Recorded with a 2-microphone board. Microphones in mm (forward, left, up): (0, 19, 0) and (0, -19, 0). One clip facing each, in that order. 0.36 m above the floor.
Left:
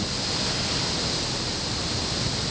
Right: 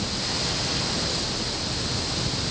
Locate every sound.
Only background noise.